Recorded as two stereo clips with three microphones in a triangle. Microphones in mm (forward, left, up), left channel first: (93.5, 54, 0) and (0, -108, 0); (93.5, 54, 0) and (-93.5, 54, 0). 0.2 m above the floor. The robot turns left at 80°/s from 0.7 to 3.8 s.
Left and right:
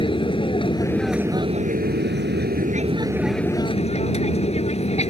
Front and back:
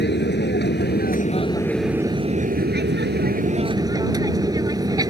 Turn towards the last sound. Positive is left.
turn(degrees=110)